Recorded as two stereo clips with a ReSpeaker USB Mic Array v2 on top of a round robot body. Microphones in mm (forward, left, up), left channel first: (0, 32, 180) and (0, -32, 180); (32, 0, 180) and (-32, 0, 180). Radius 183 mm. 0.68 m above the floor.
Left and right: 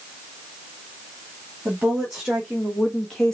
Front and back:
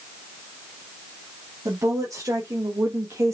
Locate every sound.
1.6 s a woman speaking: 165° right, 2 m; by 3.4 s 165° left, 1.4 m